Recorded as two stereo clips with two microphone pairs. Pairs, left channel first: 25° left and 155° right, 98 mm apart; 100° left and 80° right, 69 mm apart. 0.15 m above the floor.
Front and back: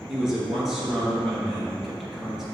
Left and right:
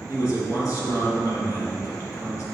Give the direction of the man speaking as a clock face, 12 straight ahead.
8 o'clock.